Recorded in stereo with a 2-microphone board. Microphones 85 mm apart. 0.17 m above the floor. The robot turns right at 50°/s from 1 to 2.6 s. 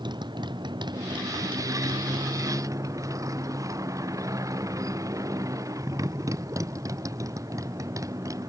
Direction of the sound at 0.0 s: 120° right.